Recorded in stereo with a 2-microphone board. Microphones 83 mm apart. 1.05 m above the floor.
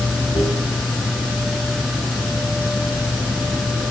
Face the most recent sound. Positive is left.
turn(degrees=85)